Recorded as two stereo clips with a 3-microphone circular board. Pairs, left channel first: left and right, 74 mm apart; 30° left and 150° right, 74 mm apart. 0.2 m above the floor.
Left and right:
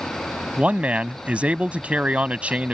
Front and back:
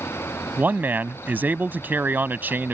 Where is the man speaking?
135° right.